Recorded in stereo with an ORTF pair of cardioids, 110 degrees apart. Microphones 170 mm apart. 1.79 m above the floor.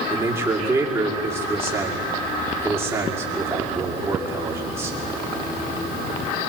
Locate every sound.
0.1 s a man speaking: 15° right, 5.5 m